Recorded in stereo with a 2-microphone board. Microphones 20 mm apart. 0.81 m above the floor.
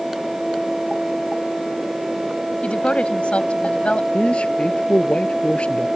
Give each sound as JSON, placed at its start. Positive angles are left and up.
{"t": 2.6, "sound": "a woman speaking", "side_deg": 80}
{"t": 4.1, "sound": "a man speaking", "side_deg": 65}